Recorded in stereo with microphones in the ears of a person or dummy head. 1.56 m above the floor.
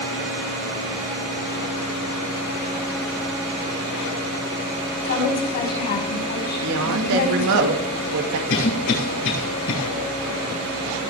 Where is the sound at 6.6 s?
70° right (ahead or behind), 2 m.